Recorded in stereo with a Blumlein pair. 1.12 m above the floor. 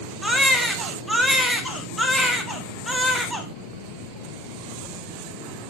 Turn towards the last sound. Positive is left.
turn(degrees=0)